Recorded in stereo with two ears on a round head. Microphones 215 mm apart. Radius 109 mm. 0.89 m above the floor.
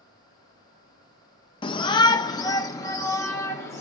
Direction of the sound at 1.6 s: 20° left (ahead or behind).